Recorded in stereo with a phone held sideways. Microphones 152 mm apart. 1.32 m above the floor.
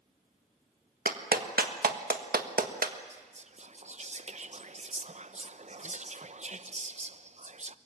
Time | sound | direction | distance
1.1 | a clap | 75° right (ahead or behind) | 1.5 m
3.1 | whispering | 50° right (ahead or behind) | 0.8 m